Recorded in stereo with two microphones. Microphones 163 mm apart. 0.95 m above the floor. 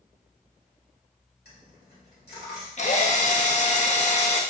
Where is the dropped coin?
85° left, 1.8 m.